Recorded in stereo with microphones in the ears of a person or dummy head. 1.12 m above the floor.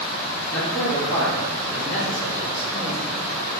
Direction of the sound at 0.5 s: 5° left (ahead or behind).